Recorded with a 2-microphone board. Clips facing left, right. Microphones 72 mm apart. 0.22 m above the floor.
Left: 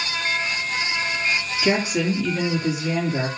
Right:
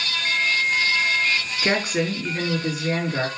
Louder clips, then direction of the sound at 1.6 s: Left 2 dB; 45° right (ahead or behind).